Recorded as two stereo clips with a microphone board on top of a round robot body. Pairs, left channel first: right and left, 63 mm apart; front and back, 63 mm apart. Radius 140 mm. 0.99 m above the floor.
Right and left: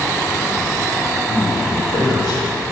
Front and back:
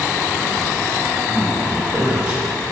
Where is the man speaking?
110° right, 5.5 m; by 2.4 s 115° right, 6.5 m.